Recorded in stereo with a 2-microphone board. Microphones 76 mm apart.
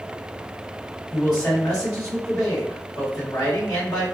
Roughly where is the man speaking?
Left.